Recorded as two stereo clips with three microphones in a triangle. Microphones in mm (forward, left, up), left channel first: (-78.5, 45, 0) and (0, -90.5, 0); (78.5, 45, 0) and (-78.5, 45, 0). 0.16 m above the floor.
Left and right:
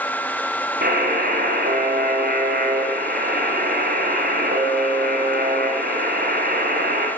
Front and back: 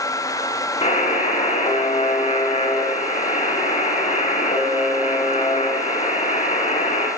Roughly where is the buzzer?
Ahead right.